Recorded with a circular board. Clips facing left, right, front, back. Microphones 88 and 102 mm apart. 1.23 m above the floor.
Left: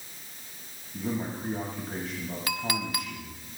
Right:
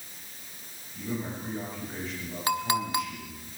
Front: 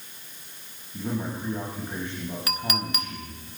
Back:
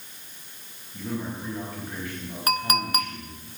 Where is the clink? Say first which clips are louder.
Right 6 dB, back 8 dB; 145° right, 1.0 m.